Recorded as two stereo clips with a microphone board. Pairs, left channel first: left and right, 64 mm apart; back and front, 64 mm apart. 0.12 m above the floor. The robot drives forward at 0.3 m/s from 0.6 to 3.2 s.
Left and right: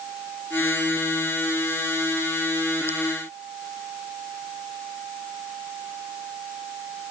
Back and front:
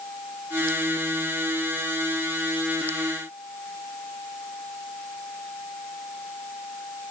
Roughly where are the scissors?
I don't hear scissors.